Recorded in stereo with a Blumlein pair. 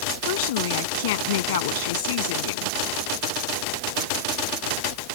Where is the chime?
I don't hear a chime.